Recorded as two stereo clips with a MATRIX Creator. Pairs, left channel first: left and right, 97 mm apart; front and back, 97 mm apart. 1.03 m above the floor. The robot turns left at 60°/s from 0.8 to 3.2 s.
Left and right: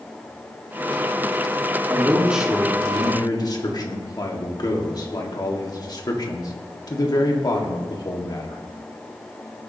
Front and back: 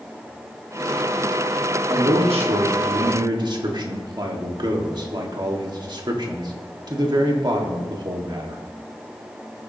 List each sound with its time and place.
1.9 s a man speaking: 145° right, 1.7 m; by 8.6 s 140° left, 1.7 m